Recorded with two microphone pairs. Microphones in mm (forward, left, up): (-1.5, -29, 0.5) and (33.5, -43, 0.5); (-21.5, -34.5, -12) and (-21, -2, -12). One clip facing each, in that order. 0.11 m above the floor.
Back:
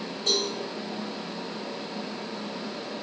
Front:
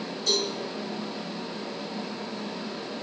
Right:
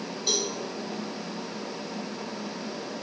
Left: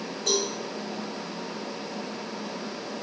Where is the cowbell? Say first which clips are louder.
Even, left 2 dB; 110° left, 3 m.